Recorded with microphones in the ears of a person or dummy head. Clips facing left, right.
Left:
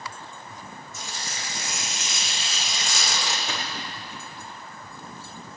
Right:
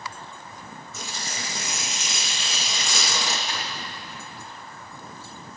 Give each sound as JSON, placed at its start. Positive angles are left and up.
{"t": 0.9, "sound": "tearing paper", "side_deg": -65, "distance_m": 2.0}
{"t": 3.5, "sound": "a splash", "side_deg": 80, "distance_m": 3.5}